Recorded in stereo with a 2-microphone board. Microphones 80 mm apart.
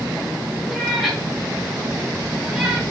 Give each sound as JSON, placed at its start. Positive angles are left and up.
{"t": 0.7, "sound": "a cat meowing", "side_deg": 0, "distance_m": 9.0}